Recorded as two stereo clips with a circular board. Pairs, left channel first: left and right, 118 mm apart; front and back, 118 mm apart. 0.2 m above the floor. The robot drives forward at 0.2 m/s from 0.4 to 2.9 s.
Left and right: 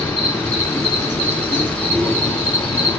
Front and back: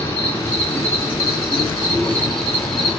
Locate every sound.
0.0 s an insect: 45° left, 1.9 m; by 3.0 s 85° left, 1.8 m